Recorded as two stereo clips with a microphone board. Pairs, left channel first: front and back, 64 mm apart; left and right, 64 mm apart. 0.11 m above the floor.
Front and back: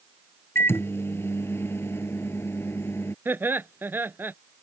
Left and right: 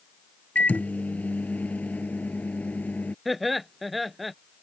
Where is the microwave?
35° left.